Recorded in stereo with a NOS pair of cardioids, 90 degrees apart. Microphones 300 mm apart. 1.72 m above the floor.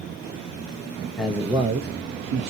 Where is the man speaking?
Straight ahead, 1.0 m; by 2.5 s 65° right, 1.0 m.